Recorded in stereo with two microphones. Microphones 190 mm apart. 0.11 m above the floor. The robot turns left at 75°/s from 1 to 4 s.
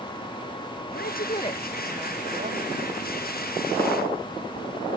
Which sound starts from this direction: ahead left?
A woman speaking, at 0.9 s.